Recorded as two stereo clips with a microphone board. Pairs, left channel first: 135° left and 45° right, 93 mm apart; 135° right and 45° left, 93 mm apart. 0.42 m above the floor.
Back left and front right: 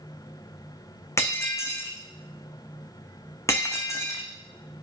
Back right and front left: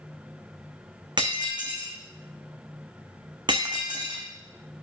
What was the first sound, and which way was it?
Breaking glass, 80° left.